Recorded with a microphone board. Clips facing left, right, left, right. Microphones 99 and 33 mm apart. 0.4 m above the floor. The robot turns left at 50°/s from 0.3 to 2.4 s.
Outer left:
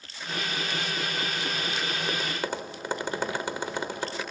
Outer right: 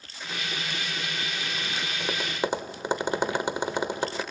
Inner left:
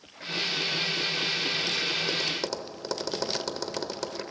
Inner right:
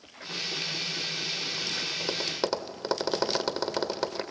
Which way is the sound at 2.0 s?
10° right (ahead or behind).